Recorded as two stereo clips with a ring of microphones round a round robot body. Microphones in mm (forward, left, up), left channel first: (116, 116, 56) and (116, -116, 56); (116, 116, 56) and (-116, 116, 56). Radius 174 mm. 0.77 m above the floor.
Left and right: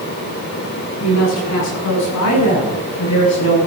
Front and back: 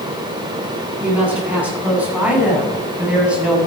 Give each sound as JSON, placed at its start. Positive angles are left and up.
{"t": 1.0, "sound": "a woman speaking", "azimuth_deg": 95, "distance_m": 9.0}